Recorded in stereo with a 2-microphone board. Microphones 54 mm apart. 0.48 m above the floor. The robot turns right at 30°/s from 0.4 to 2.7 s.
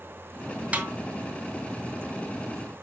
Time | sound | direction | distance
0.7 | a snare drum | 30° right (ahead or behind) | 1.8 m